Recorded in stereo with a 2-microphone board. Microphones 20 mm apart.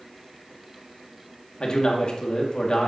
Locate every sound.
1.6 s a man speaking: 50° left (ahead or behind), 1.6 m